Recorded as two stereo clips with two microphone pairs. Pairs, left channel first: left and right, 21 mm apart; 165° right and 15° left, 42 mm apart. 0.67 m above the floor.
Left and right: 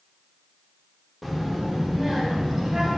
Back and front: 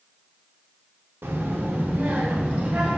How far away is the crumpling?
I don't hear crumpling.